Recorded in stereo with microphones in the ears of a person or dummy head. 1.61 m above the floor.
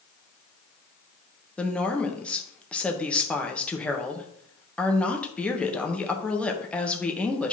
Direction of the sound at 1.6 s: 5° left (ahead or behind).